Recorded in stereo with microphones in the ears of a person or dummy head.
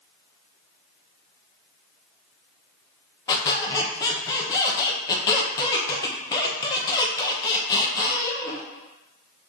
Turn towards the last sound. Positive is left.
turn(degrees=20)  # may be behind; listen again after turning